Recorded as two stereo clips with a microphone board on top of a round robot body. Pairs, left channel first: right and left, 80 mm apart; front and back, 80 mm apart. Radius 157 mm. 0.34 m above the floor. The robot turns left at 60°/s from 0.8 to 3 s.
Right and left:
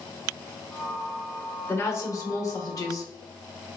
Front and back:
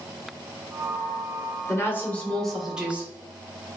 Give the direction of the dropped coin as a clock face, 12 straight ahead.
No dropped coin in this recording.